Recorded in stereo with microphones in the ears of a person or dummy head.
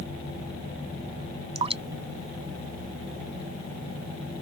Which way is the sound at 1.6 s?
30° right (ahead or behind).